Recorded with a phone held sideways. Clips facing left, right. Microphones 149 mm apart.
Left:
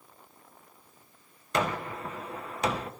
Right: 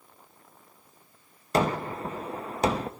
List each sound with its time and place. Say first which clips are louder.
1.5 s a gunshot: right 4 dB; 35° right (ahead or behind), 0.9 m